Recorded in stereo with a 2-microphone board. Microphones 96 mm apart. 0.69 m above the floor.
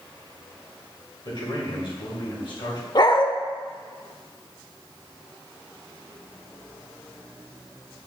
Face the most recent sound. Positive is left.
turn(degrees=45)  # may be behind; listen again after turning